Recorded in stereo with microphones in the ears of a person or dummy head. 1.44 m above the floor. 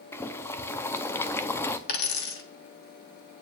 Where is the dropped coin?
60° left (ahead or behind), 1.4 m.